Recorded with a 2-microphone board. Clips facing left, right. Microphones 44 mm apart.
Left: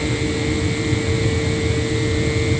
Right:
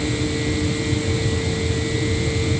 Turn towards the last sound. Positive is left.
No sound to turn to.